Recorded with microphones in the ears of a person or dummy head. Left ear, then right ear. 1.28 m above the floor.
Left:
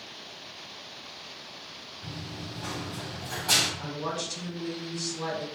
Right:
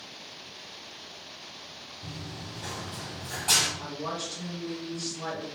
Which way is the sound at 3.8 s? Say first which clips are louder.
Left 1 dB; 70° left (ahead or behind).